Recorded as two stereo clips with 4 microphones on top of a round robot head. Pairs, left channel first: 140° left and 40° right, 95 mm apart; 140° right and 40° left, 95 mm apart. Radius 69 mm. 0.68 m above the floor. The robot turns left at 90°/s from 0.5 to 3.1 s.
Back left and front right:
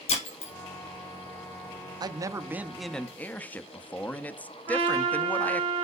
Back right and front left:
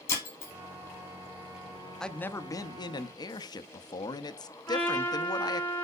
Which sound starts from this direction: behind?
Breaking glass, at 0.1 s.